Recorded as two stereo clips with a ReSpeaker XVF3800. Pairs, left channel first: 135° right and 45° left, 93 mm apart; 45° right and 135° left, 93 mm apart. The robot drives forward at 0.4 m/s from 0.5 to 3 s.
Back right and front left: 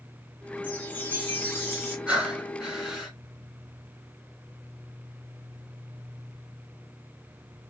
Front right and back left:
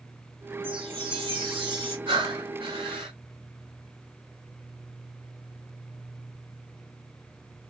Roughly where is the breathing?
Behind left.